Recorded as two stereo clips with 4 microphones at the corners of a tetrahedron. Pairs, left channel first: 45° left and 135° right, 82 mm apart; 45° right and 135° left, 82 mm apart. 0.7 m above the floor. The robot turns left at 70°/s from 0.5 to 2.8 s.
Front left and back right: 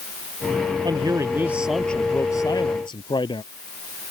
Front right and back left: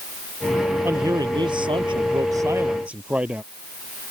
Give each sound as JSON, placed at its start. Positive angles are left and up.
{"t": 0.8, "sound": "a man speaking", "azimuth_deg": -160}